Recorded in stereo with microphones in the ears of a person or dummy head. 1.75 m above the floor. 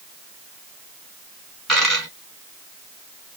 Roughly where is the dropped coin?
Centre.